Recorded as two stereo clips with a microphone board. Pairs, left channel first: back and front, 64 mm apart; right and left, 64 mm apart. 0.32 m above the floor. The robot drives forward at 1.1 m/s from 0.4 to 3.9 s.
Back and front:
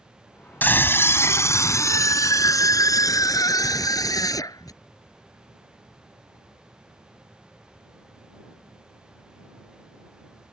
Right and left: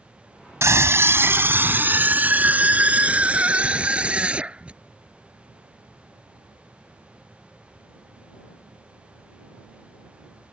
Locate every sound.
0.6 s a scream: 125° left; by 4.8 s 165° left